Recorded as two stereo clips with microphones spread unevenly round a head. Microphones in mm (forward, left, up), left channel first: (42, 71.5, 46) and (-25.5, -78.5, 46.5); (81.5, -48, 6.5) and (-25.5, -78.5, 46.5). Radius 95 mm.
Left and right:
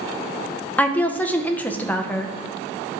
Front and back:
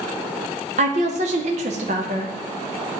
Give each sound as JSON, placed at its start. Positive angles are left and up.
{"t": 0.8, "sound": "a woman speaking", "azimuth_deg": 145, "distance_m": 0.6}